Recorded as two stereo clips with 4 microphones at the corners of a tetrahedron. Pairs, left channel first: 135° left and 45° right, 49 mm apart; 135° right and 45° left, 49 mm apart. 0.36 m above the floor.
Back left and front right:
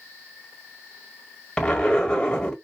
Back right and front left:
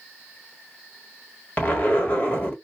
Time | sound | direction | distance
1.6 | a zipper | 165° right | 1.3 m